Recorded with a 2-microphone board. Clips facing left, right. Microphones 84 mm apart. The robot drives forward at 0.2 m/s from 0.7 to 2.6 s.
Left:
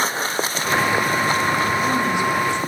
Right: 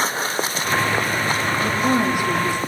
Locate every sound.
1.6 s a woman speaking: 45° right (ahead or behind), 7.5 m